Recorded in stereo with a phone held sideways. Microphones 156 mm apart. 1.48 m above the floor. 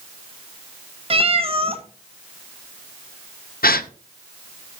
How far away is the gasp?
About 0.5 m.